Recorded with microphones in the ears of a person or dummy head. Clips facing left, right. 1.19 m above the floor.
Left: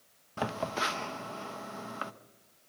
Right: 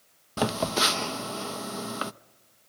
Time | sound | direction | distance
0.4 | a phone buzzing | 55° right (ahead or behind) | 0.6 m